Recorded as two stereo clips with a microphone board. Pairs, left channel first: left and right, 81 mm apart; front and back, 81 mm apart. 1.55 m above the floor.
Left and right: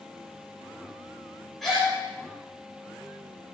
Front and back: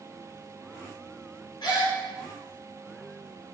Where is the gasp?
Straight ahead, 2.5 m.